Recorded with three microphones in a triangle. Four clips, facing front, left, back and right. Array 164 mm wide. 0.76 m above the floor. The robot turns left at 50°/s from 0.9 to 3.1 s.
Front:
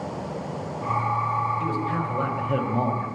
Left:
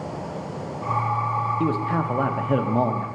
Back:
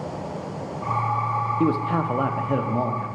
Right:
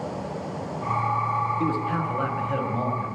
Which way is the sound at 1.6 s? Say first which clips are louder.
Left 2 dB, back 4 dB; 160° left.